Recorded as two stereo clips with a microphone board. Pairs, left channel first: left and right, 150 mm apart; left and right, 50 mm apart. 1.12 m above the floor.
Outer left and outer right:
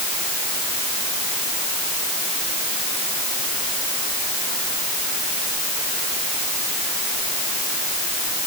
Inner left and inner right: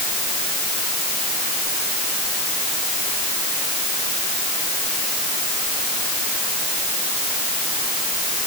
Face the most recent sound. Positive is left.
No sound to turn to.